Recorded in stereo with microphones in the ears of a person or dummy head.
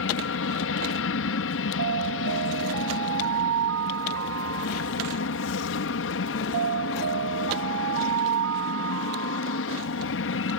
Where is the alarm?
70° right (ahead or behind).